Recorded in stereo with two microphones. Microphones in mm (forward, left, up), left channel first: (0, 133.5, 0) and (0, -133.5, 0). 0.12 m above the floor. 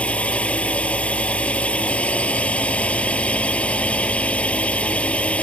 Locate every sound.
0.0 s a drone: 5° left (ahead or behind)